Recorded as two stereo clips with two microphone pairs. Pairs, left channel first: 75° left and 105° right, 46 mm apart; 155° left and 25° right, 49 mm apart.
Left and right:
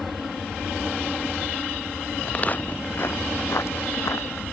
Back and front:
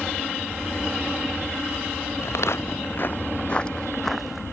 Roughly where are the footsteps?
Behind left.